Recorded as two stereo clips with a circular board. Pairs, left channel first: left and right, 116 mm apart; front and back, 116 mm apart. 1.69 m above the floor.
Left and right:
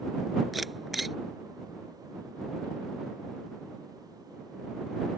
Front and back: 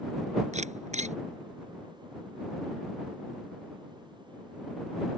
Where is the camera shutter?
Straight behind.